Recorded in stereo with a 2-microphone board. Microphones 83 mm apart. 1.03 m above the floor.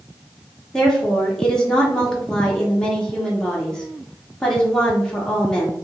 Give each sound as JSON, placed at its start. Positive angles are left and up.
{"t": 0.7, "sound": "a woman speaking", "side_deg": 5, "distance_m": 0.8}